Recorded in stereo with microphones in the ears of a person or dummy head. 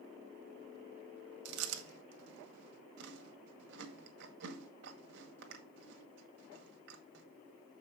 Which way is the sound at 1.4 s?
65° right (ahead or behind).